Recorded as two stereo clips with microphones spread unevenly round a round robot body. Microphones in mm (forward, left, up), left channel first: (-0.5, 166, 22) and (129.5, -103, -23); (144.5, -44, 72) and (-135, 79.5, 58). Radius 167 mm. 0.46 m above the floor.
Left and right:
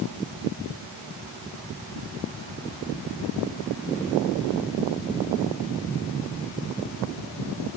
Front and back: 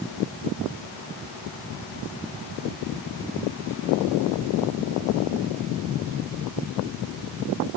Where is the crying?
No crying in this recording.